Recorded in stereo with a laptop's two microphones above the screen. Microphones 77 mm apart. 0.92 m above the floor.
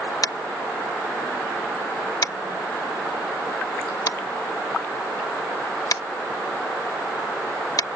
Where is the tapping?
55° left (ahead or behind).